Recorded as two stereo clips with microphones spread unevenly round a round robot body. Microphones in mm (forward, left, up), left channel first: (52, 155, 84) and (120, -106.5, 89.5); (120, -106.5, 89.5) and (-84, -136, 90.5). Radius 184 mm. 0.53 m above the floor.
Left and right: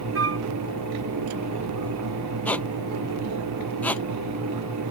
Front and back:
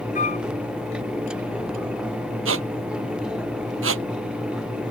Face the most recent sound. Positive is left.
turn(degrees=-170)